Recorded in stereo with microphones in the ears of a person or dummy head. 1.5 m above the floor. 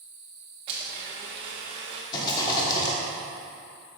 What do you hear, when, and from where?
0.7 s a blender: 30° right (ahead or behind), 0.8 m
2.1 s a rattle: 25° left (ahead or behind), 1.4 m